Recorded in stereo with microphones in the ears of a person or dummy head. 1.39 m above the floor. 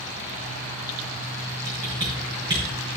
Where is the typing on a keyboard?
30° right (ahead or behind), 5 m.